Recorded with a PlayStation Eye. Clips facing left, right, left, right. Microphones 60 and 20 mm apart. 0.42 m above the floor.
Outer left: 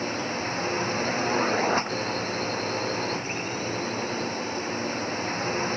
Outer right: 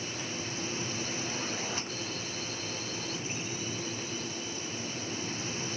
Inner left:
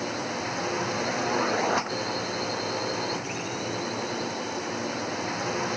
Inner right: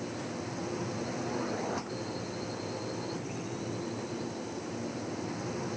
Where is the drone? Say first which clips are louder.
Outer left 9 dB, inner left 7 dB; 50° left (ahead or behind).